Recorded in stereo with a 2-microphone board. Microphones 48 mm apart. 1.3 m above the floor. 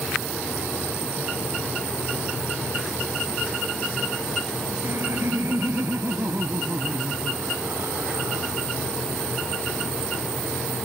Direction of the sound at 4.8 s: 80° right.